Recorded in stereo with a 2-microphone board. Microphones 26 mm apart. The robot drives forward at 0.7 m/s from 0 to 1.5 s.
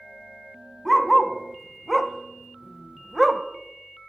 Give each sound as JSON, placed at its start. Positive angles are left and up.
{"t": 0.8, "sound": "a dog barking", "side_deg": 0, "distance_m": 0.9}